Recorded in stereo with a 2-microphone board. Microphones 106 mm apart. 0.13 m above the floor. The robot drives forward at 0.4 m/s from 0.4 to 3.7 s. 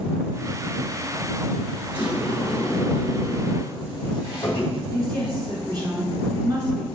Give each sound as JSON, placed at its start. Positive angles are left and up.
{"t": 1.9, "sound": "a sliding door", "side_deg": 50, "distance_m": 2.5}
{"t": 4.9, "sound": "a woman speaking", "side_deg": -40, "distance_m": 1.7}